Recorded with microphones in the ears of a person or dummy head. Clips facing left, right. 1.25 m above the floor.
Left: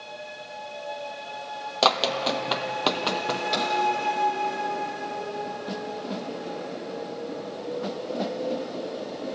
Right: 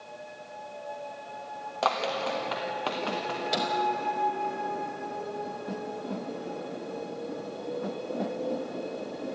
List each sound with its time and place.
1.8 s running footsteps: 55° left (ahead or behind), 2.5 m; by 3.4 s 60° left (ahead or behind), 2.5 m
3.5 s a microwave: 10° right (ahead or behind), 4 m